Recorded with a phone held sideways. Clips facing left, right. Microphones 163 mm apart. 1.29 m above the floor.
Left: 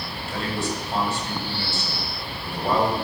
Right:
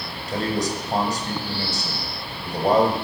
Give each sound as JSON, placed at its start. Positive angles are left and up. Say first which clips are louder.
{"t": 0.3, "sound": "a man speaking", "louder": "right 4 dB", "side_deg": -40, "distance_m": 6.5}